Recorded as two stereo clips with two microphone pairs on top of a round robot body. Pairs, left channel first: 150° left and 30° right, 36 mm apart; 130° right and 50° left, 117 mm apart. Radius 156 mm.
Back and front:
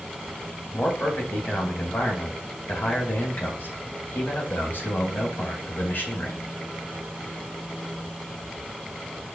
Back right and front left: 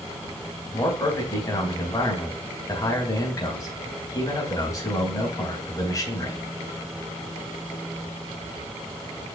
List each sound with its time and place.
0.7 s a man speaking: 175° left, 3.5 m